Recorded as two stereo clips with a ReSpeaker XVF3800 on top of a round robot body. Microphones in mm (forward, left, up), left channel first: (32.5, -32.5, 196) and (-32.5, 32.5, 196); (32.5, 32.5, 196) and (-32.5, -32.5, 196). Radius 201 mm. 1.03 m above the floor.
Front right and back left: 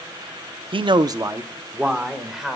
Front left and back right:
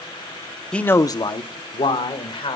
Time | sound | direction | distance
0.7 | a man speaking | 125° left | 0.9 m